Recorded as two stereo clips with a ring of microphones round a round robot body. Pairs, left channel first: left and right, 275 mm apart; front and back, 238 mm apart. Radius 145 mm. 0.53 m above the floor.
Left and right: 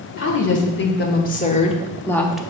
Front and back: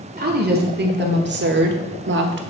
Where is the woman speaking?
130° left, 1.6 m; by 2.4 s 175° right, 0.9 m.